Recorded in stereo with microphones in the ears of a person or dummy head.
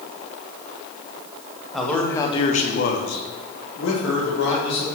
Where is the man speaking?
Centre (ahead or behind), 1.2 m; by 4.8 s 60° left (ahead or behind), 2.5 m.